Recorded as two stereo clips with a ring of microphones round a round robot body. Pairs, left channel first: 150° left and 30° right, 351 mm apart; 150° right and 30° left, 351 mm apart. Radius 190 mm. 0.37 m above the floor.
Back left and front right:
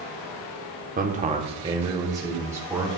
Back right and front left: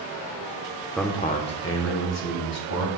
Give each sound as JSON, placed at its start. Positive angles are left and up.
{"t": 1.0, "sound": "a man speaking", "azimuth_deg": -60, "distance_m": 0.8}